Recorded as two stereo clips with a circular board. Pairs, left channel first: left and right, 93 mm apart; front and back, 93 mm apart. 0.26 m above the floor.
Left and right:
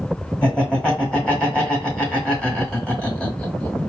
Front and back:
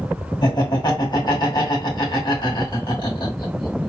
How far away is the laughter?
About 2.5 m.